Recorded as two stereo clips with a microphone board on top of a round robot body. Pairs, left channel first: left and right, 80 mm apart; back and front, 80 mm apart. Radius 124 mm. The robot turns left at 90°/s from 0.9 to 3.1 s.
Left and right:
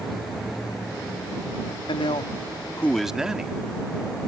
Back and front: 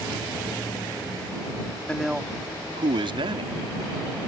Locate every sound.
1.9 s a man speaking: 105° left; by 3.6 s 5° right